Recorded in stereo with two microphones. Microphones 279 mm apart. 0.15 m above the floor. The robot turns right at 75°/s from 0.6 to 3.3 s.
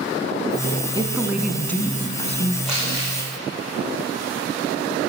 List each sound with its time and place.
0.9 s a woman speaking: 20° right (ahead or behind), 1.1 m; by 2.5 s 25° left (ahead or behind), 1.1 m
2.6 s crumpling: centre (ahead or behind), 7.5 m; by 3.1 s 30° right (ahead or behind), 7.5 m